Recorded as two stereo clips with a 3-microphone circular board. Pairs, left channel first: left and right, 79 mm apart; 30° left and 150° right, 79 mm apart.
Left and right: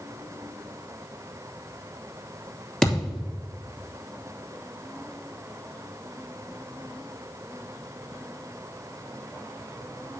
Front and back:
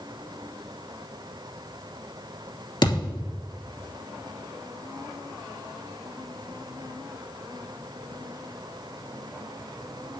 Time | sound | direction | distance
2.8 | a thud | 10° left | 2.5 m